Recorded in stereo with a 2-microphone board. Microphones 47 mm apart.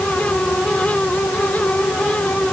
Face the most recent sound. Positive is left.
No sound to turn to.